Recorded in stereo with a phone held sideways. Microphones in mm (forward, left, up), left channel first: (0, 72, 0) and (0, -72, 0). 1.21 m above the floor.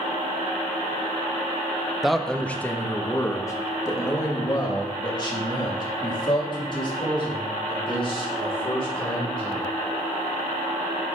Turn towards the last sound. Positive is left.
turn(degrees=40)  # may be behind; listen again after turning